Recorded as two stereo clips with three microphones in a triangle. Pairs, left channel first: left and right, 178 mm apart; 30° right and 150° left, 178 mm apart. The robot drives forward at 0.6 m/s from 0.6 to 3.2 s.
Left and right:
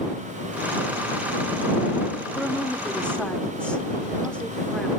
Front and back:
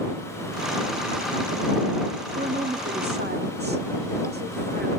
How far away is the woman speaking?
About 0.9 m.